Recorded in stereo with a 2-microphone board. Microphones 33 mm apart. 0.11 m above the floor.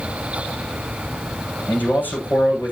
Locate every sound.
1.7 s a man speaking: 70° left (ahead or behind), 6.5 m